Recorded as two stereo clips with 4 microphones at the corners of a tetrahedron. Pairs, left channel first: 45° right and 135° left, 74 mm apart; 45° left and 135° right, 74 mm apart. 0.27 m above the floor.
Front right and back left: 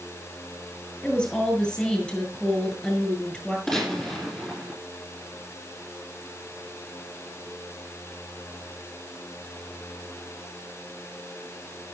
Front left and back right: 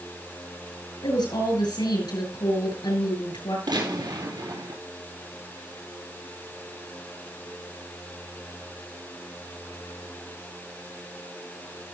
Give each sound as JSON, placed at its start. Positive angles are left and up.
{"t": 1.0, "sound": "a woman speaking", "azimuth_deg": 35, "distance_m": 7.0}
{"t": 3.7, "sound": "a gunshot", "azimuth_deg": -130, "distance_m": 6.0}